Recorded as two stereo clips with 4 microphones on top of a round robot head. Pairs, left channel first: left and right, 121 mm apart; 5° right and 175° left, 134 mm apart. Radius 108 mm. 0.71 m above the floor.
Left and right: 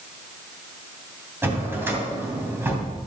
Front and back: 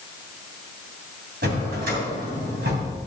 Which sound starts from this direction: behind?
A drawer, at 1.4 s.